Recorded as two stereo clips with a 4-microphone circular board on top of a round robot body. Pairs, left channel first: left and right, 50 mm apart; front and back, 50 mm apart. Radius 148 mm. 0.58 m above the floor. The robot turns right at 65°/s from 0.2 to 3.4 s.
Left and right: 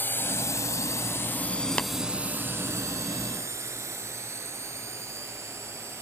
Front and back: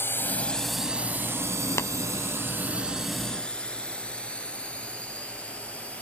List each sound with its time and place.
0.0 s a drone: 40° left; by 6.0 s 65° right
1.8 s tapping: 25° left; by 1.9 s 35° left